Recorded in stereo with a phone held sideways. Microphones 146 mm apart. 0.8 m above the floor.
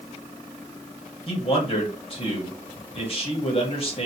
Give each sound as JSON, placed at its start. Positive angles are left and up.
{"t": 1.3, "sound": "a man speaking", "side_deg": 40, "distance_m": 1.1}